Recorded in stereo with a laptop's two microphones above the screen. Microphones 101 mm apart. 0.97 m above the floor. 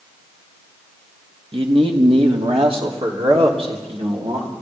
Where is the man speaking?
60° right (ahead or behind), 1.8 m; by 4.5 s 75° right (ahead or behind), 4 m.